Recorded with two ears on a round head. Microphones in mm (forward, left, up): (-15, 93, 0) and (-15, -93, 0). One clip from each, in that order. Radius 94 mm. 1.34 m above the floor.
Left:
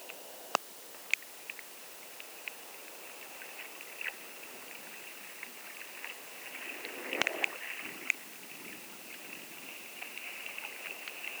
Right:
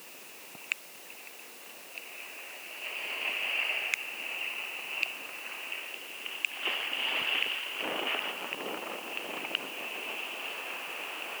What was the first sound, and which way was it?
Only background noise.